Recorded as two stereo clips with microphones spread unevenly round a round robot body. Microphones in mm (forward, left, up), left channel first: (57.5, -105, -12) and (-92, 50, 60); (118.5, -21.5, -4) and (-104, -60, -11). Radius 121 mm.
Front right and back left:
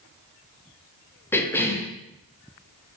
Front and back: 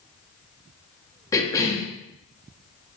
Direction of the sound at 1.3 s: 55° right.